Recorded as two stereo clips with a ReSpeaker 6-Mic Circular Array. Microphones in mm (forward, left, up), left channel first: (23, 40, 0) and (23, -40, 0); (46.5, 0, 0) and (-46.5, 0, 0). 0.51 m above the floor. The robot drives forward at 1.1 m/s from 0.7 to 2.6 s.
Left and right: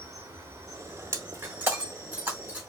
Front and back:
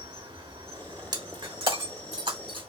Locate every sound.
0.0 s an insect: 150° right, 1.3 m; by 2.7 s 170° right, 3.5 m
1.1 s breaking glass: 140° right, 1.0 m; by 2.7 s 165° right, 2.5 m